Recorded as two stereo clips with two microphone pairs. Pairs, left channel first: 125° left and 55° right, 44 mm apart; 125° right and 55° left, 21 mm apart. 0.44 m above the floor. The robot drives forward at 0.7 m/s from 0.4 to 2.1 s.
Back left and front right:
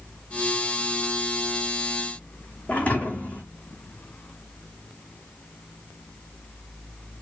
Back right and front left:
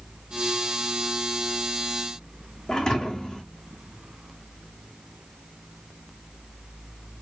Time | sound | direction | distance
2.7 | a thud | 175° right | 1.7 m